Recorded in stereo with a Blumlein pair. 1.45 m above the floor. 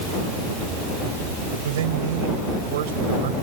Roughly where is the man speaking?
Ahead right.